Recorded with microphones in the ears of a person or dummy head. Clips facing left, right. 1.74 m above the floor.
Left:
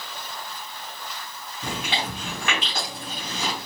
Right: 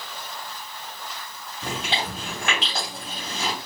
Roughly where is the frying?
I don't hear frying.